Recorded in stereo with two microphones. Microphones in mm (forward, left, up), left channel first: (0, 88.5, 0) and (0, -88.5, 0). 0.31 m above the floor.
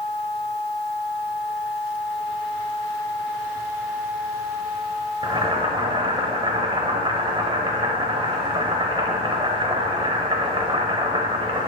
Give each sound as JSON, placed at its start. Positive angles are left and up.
{"t": 5.2, "sound": "boiling", "side_deg": -30, "distance_m": 0.8}